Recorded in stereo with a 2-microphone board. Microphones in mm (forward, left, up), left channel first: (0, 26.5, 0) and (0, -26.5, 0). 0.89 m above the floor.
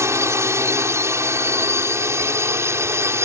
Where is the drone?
60° right (ahead or behind); by 3.2 s 55° right (ahead or behind).